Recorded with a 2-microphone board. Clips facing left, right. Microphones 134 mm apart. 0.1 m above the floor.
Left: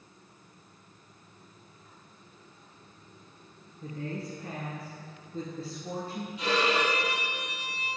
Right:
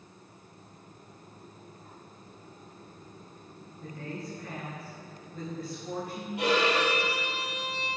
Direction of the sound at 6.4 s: 65° right (ahead or behind).